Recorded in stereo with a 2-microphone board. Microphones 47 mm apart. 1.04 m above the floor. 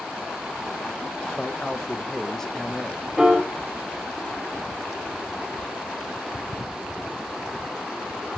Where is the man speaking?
10° left (ahead or behind), 1.3 m.